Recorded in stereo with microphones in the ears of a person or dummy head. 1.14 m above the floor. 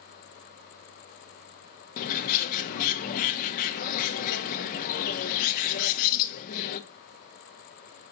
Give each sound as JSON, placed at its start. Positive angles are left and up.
{"t": 2.0, "sound": "a bird", "side_deg": 50, "distance_m": 0.6}